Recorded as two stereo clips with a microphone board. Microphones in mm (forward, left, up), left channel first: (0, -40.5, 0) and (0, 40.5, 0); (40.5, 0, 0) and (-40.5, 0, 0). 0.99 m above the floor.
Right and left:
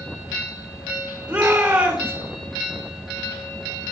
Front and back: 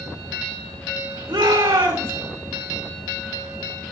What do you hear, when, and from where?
1.3 s a shout: 160° left, 2.5 m